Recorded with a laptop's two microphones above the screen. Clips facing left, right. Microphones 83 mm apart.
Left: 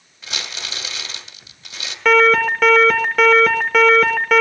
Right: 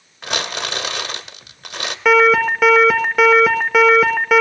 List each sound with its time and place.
0.2 s crumpling: 65° right (ahead or behind), 1.5 m
2.0 s an alarm: 5° right (ahead or behind), 1.3 m